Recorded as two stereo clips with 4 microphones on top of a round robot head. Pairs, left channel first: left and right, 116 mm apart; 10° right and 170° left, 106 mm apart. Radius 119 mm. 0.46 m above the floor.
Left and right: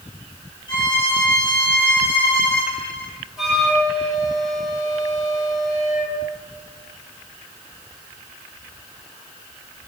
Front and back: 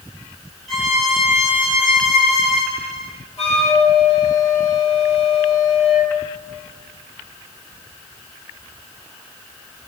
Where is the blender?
No blender in this recording.